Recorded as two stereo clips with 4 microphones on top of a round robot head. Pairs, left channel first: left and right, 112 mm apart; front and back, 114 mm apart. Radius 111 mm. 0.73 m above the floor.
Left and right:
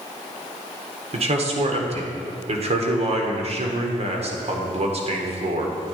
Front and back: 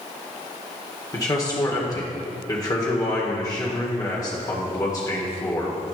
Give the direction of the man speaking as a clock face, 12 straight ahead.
2 o'clock.